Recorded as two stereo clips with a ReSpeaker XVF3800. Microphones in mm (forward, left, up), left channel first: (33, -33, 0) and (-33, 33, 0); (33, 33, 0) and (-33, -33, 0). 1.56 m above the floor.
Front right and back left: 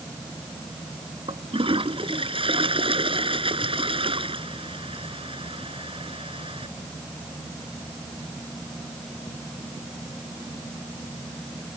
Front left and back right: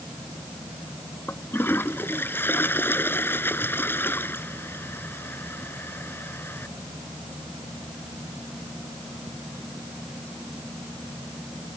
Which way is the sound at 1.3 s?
115° left.